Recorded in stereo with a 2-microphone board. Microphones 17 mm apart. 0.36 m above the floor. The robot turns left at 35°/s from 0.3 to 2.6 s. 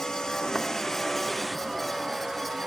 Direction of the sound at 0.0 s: 50° left (ahead or behind).